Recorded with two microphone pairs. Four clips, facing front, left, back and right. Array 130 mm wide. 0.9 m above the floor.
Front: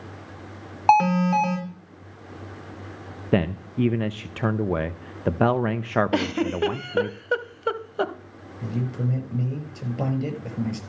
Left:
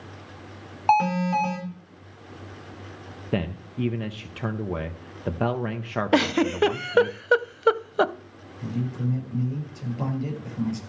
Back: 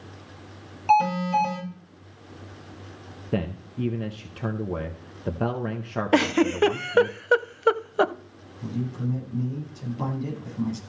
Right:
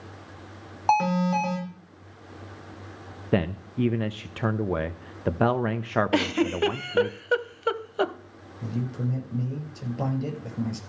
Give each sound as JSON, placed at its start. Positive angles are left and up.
{"t": 0.9, "sound": "an alarm", "azimuth_deg": 10, "distance_m": 5.0}
{"t": 3.3, "sound": "a man speaking", "azimuth_deg": -10, "distance_m": 0.7}
{"t": 6.1, "sound": "a giggle", "azimuth_deg": 140, "distance_m": 0.7}
{"t": 8.6, "sound": "a man speaking", "azimuth_deg": -15, "distance_m": 6.0}